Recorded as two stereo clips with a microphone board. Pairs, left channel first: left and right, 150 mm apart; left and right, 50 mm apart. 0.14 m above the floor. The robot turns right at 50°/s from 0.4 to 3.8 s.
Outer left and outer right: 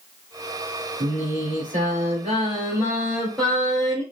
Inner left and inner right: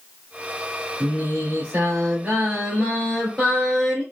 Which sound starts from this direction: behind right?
Singing, at 1.0 s.